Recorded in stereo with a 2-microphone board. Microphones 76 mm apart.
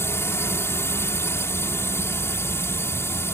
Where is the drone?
35° left (ahead or behind).